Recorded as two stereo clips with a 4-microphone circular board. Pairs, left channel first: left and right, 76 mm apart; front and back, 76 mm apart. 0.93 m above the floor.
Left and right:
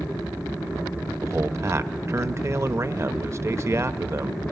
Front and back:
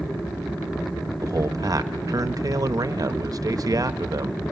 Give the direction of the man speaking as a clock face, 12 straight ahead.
5 o'clock.